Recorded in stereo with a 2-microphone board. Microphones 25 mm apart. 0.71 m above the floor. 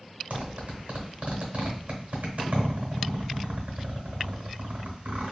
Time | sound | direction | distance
0.3 | a zipper | 80° right | 1.0 m